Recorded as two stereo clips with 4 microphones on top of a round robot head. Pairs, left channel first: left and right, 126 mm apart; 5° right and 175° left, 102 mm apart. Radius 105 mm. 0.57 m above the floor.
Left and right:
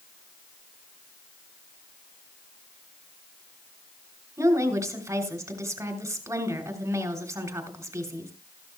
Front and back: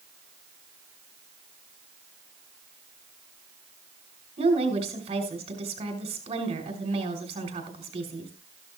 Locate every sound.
4.4 s a woman speaking: 160° right, 3 m